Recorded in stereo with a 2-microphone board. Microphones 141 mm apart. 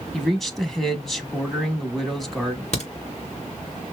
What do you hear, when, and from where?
0.1 s a man speaking: centre (ahead or behind), 1.1 m
2.7 s a crack: 50° left (ahead or behind), 2.5 m